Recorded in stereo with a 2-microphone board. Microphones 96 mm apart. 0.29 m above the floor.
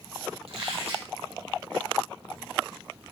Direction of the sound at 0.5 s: 80° right.